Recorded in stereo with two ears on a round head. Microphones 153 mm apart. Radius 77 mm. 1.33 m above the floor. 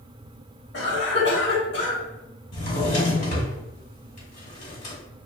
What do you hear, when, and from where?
0.7 s a cough: 70° left (ahead or behind), 1.1 m
2.5 s a drawer: 45° left (ahead or behind), 1.4 m